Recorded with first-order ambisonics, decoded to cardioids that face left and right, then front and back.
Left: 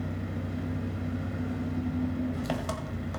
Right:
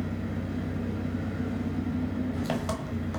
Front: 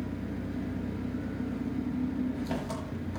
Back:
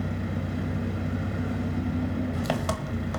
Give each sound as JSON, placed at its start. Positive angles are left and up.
{"t": 0.0, "sound": "an engine running", "azimuth_deg": 180, "distance_m": 1.5}